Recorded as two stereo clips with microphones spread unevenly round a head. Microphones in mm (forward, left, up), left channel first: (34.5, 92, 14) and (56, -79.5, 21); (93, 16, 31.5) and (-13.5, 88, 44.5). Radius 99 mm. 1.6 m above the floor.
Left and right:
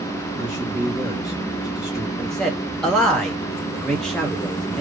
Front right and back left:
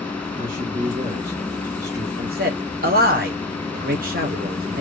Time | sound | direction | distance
0.4 | a man speaking | 170° right | 1.5 m
2.2 | a man speaking | 175° right | 1.0 m